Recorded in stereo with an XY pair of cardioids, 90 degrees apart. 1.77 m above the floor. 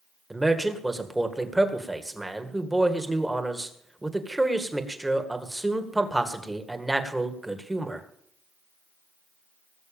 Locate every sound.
0.3 s a man speaking: 15° right, 2 m